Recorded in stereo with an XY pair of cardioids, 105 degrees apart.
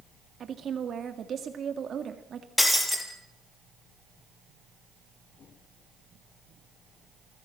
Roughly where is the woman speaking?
Ahead right.